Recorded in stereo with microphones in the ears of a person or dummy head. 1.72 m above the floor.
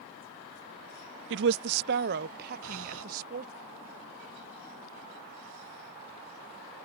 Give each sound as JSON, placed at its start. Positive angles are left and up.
{"t": 1.3, "sound": "a woman speaking", "side_deg": -70}
{"t": 2.6, "sound": "breathing", "side_deg": -80}